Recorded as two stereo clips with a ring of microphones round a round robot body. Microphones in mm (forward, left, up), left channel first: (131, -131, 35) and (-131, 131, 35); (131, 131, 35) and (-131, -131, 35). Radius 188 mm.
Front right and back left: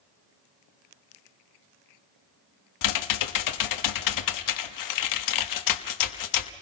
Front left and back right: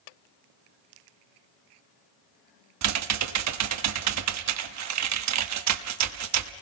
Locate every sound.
2.8 s typing on a keyboard: 85° right, 1.1 m